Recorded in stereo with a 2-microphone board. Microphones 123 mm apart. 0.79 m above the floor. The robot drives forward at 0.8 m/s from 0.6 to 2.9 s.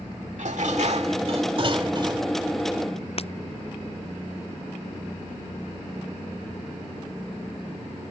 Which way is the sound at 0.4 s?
70° right (ahead or behind).